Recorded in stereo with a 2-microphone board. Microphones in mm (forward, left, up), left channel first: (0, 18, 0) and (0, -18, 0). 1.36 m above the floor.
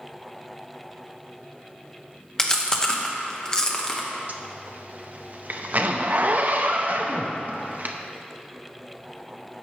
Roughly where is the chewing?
Left.